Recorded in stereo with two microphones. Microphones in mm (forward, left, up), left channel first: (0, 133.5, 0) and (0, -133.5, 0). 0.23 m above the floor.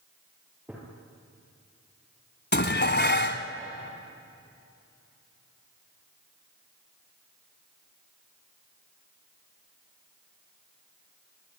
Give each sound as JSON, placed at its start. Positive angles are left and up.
{"t": 0.7, "sound": "a gunshot", "side_deg": -5, "distance_m": 5.5}
{"t": 2.5, "sound": "dishes clattering", "side_deg": 40, "distance_m": 1.3}